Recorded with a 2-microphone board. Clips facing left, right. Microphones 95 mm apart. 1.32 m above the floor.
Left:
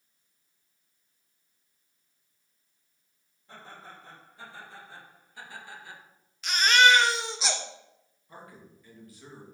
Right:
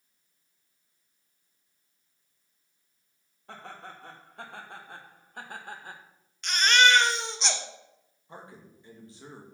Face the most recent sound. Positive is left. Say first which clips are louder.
# right 1 dB
turn(degrees=-25)  # may be behind; listen again after turning